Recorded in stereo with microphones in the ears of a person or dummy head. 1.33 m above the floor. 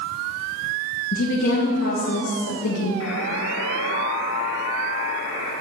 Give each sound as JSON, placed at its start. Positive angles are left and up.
{"t": 1.1, "sound": "a woman speaking", "side_deg": 50, "distance_m": 1.6}
{"t": 3.0, "sound": "a buzzer", "side_deg": 65, "distance_m": 2.5}